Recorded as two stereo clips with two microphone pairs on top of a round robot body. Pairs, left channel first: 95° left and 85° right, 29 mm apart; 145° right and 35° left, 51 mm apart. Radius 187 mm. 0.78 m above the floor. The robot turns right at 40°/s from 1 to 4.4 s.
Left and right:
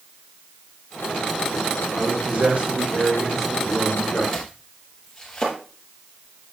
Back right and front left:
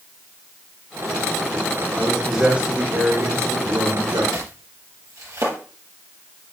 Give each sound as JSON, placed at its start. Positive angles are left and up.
{"t": 1.9, "sound": "a man speaking", "azimuth_deg": -60, "distance_m": 2.5}
{"t": 4.3, "sound": "chopping", "azimuth_deg": 20, "distance_m": 4.0}